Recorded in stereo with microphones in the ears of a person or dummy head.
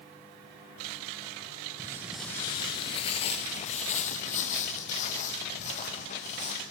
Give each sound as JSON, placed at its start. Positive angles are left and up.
{"t": 1.8, "sound": "footsteps", "side_deg": -10, "distance_m": 1.3}